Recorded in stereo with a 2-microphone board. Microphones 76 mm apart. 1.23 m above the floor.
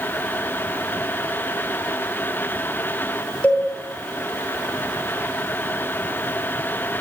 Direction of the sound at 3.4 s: 20° left (ahead or behind).